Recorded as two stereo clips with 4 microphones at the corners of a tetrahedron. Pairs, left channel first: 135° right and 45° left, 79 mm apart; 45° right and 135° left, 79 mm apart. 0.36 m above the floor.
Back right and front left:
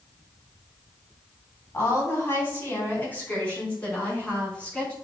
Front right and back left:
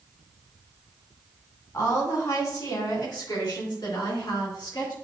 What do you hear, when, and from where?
1.7 s a woman speaking: 80° right, 3 m; by 4.9 s 60° right, 4.5 m